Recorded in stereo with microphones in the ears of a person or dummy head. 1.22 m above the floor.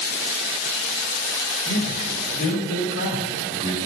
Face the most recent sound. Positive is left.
turn(degrees=55)  # may be behind; listen again after turning